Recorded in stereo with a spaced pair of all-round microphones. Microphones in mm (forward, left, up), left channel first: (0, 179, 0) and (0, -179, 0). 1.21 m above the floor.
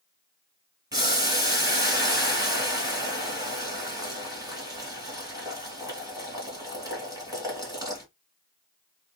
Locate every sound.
0.9 s boiling: 10° right (ahead or behind), 2.5 m